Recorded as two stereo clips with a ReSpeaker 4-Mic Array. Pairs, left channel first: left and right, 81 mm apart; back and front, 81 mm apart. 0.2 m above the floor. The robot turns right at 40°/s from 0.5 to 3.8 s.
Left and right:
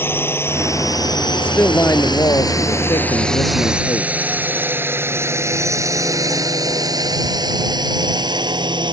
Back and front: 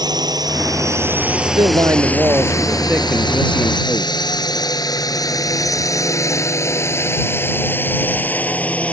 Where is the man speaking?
20° left; by 4.1 s 115° left.